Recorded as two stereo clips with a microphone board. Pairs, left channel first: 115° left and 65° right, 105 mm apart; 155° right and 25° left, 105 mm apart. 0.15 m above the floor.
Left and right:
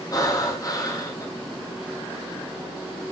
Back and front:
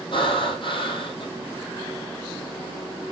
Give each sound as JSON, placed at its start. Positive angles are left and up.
{"t": 0.1, "sound": "breathing", "azimuth_deg": 170, "distance_m": 2.0}